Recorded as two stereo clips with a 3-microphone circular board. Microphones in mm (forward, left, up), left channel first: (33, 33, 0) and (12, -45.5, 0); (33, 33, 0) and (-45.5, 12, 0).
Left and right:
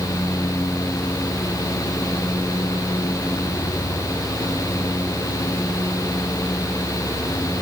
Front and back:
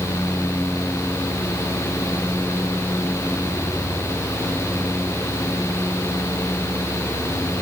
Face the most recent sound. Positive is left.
No sound to turn to.